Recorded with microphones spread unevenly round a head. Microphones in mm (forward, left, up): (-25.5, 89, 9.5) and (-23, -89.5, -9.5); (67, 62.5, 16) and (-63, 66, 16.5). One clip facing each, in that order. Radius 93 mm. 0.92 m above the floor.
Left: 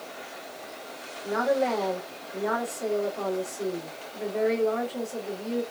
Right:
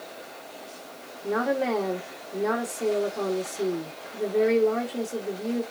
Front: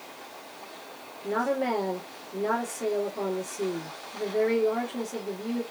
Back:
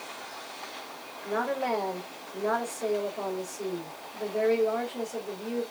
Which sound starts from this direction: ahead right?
A woman speaking, at 1.2 s.